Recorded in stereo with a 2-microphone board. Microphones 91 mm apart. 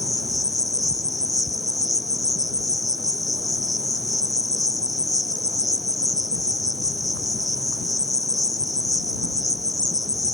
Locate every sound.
0.0 s an insect: 10° left (ahead or behind)